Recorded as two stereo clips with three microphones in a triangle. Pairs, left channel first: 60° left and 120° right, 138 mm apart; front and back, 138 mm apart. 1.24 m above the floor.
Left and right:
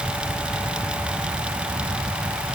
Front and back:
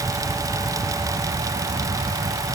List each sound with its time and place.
Only background noise.